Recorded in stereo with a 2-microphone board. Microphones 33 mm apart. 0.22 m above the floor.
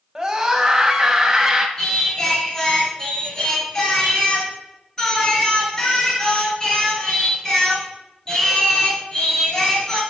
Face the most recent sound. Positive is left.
turn(degrees=20)  # may be behind; listen again after turning